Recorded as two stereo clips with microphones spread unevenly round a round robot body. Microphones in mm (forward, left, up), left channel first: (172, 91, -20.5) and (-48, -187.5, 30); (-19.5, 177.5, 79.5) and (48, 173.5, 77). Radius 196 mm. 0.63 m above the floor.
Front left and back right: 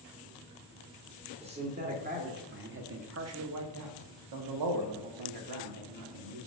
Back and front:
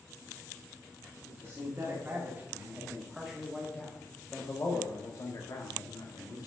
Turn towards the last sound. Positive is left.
turn(degrees=-170)